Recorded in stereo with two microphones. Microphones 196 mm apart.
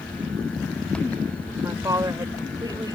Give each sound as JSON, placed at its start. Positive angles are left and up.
{"t": 1.6, "sound": "a woman speaking", "side_deg": -15}